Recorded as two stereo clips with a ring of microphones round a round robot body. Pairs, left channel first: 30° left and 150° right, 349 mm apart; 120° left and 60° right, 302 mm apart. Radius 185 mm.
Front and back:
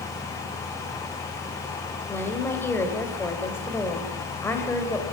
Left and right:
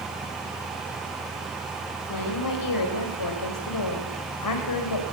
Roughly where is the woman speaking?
Behind left.